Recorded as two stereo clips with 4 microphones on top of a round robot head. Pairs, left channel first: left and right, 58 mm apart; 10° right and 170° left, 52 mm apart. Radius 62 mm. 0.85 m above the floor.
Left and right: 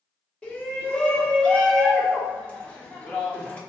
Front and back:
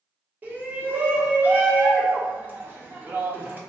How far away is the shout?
About 1.1 m.